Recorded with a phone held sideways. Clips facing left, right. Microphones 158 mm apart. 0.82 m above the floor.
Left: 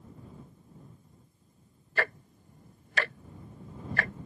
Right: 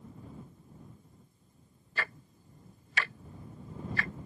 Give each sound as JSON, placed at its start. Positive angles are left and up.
{"t": 2.0, "sound": "ticking", "side_deg": 55}